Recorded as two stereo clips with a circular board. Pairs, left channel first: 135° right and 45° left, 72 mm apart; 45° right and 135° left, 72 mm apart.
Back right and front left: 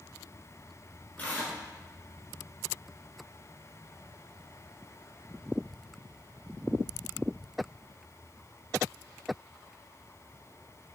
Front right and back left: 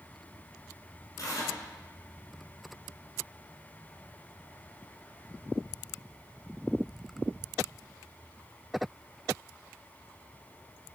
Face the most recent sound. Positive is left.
turn(degrees=-70)